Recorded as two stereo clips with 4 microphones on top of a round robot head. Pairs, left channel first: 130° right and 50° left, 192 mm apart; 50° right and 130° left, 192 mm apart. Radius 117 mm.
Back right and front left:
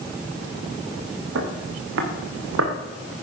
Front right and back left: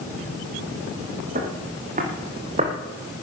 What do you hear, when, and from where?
1.4 s footsteps: 80° left, 3.5 m; by 2.7 s 70° left, 3 m